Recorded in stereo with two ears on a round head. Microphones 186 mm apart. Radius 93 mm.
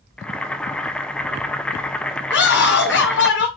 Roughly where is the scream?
Left.